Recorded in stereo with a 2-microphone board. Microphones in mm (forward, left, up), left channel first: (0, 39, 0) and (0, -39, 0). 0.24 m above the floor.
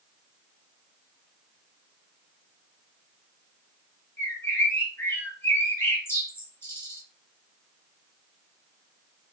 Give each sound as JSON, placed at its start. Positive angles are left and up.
{"t": 4.2, "sound": "a bird", "side_deg": 35, "distance_m": 1.3}